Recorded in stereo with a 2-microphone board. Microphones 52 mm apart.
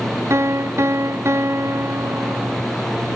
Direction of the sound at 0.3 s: 55° right (ahead or behind).